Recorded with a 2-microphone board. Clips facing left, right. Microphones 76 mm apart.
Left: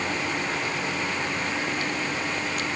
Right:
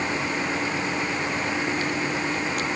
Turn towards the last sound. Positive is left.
No sound to turn to.